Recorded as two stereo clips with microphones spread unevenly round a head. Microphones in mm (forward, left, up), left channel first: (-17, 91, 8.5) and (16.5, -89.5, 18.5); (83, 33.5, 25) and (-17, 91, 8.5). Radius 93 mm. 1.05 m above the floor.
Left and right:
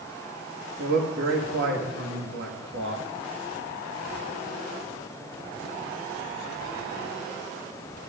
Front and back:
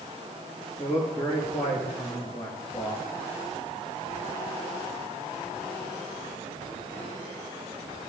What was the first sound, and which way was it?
A man speaking, 100° right.